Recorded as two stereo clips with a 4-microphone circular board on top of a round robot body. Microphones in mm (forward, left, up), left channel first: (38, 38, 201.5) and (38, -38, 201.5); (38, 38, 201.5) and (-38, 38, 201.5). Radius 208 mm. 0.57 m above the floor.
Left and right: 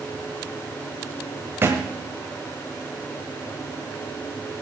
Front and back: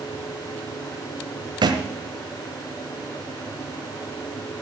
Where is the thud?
155° right, 1.4 m.